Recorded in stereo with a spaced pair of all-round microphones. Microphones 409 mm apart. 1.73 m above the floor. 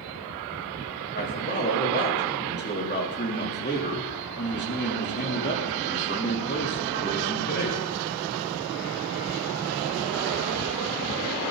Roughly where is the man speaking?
Left.